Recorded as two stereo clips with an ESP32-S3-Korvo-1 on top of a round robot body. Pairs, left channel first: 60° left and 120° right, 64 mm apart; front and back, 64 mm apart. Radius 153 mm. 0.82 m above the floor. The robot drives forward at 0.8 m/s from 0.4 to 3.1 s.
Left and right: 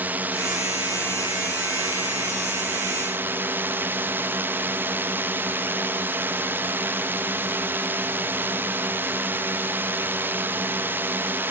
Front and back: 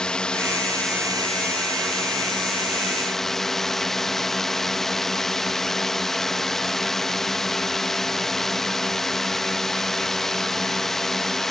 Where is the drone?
75° right; by 11.5 s 85° right.